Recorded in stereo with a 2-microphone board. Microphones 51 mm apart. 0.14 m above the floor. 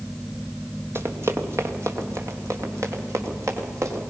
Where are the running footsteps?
55° right (ahead or behind), 2.5 m; by 4.0 s 80° right, 5 m.